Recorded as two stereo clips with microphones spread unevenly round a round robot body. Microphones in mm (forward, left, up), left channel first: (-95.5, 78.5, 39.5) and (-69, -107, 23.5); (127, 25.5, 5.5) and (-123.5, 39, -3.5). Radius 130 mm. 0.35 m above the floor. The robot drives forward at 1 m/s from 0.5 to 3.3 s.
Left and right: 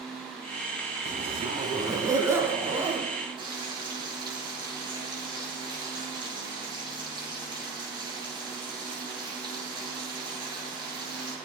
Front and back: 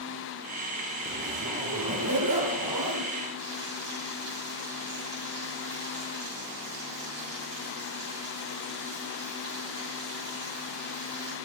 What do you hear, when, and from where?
1.1 s a zipper: 135° right, 1.3 m; by 3.1 s 165° right, 3 m
3.4 s frying: 145° right, 8 m